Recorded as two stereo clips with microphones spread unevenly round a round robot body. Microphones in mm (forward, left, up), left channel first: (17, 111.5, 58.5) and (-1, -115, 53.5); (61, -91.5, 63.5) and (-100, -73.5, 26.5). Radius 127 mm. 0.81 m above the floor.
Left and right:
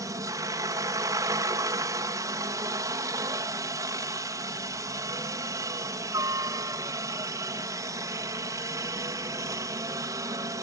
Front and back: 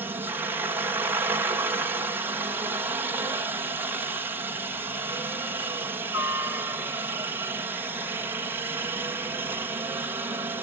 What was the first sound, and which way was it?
A helicopter, 155° right.